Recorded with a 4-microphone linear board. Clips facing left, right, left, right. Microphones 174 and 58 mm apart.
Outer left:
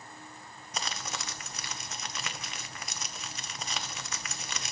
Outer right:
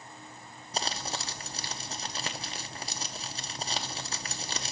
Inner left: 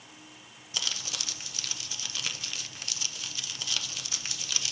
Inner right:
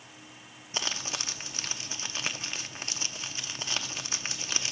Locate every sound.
0.7 s crumpling: 30° right (ahead or behind), 0.6 m